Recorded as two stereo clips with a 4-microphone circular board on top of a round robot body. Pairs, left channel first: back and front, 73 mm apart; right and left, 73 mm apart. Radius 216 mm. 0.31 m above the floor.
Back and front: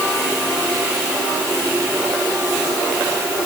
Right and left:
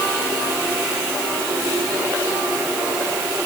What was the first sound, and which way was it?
Only background noise.